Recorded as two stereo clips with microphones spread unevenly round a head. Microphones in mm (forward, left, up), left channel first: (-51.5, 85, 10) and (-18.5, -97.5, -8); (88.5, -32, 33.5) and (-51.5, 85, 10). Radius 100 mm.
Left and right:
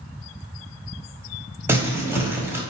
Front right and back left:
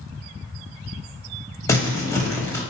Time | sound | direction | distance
1.7 | crumpling | 5° right | 1.0 m